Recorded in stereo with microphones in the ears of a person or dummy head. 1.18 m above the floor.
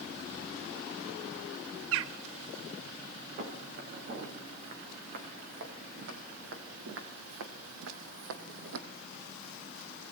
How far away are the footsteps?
About 5.5 m.